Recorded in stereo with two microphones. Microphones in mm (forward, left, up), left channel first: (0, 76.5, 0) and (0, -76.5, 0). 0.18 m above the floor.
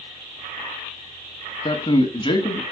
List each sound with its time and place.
1.6 s a man speaking: 30° left (ahead or behind), 1.1 m